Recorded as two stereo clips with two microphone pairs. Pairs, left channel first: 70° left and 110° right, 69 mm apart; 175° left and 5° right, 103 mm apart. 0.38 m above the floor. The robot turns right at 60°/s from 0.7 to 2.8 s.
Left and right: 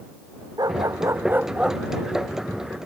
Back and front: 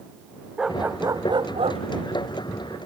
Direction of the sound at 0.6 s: 85° right.